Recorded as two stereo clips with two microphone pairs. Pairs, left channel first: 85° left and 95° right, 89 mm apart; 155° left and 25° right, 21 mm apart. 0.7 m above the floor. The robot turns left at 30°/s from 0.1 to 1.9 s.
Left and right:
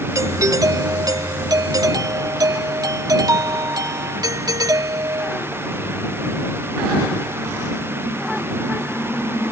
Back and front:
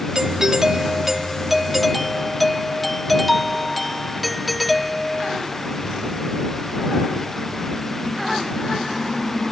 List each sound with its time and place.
0.1 s a doorbell: 60° right; by 5.4 s 115° right